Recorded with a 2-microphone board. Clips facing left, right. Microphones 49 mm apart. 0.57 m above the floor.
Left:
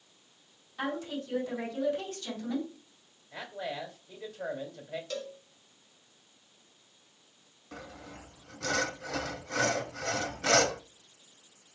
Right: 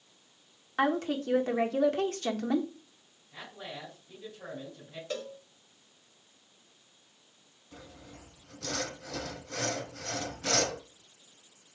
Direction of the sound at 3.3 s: 65° left (ahead or behind).